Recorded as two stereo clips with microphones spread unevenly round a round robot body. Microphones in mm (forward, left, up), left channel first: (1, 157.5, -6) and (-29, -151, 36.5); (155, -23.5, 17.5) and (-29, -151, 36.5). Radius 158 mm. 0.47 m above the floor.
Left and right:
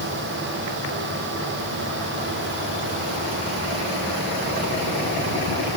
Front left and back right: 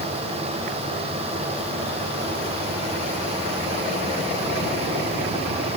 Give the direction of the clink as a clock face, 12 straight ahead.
I don't hear a clink.